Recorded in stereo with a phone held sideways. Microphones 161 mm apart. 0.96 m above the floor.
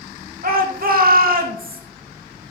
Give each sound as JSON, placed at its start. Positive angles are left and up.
{"t": 0.4, "sound": "a shout", "side_deg": -65, "distance_m": 1.7}